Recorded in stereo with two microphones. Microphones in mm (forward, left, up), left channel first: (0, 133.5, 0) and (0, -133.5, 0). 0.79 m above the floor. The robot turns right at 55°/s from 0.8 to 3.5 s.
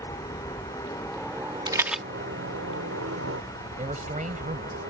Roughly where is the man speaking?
Right.